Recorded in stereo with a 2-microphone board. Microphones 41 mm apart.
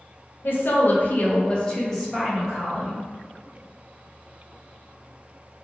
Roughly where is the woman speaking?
Left.